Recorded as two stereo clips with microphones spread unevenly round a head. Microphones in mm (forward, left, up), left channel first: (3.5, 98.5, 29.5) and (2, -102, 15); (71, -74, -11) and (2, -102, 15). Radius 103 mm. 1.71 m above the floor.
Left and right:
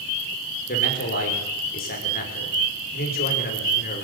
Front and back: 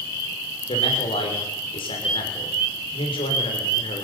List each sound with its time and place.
0.7 s a man speaking: 40° left, 5.5 m